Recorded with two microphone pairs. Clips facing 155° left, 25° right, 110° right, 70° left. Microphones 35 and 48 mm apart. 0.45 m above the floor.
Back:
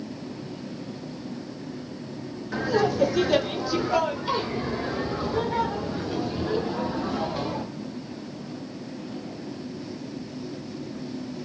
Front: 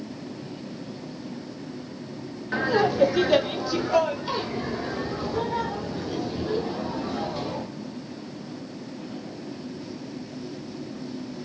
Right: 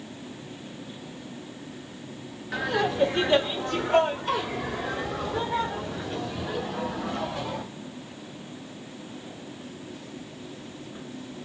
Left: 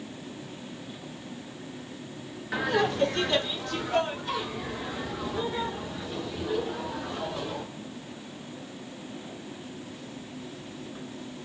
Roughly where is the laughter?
Ahead.